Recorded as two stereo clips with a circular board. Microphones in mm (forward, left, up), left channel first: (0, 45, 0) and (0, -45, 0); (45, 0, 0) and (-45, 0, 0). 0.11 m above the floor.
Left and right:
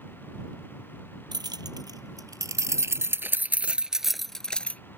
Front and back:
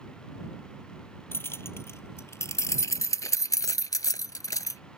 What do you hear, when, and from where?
1.3 s keys jangling: 60° right; by 4.8 s 25° left